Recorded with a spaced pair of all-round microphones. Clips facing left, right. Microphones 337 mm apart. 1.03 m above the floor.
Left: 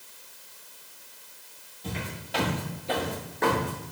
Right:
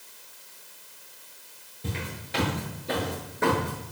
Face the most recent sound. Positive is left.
turn(degrees=5)  # may be behind; listen again after turning